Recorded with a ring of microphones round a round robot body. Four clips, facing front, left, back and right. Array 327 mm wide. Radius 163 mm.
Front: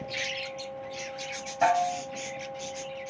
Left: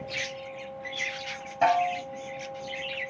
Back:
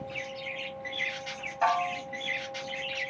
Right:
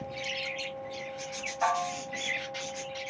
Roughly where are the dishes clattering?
Ahead left.